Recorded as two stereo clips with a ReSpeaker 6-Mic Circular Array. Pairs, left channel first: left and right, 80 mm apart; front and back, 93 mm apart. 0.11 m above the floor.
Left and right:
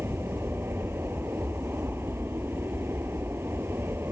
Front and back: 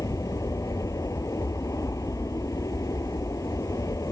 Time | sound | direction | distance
0.0 | an aircraft | 40° right | ?